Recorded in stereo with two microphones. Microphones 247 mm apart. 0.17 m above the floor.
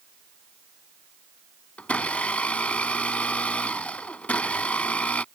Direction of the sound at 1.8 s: 5° left (ahead or behind).